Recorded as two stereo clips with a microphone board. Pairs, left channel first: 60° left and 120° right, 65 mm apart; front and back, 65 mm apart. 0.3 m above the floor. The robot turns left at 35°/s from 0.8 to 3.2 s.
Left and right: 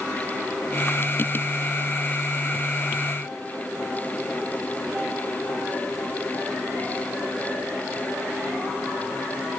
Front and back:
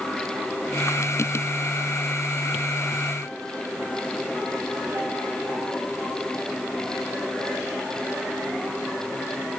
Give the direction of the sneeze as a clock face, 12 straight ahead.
No sneeze in this recording.